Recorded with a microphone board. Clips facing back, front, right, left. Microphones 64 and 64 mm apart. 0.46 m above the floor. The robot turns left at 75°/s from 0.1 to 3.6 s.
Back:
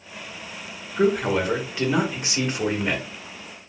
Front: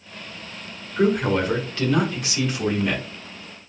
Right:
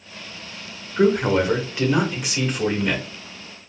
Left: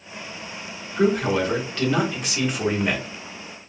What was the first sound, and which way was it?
A man speaking, 75° right.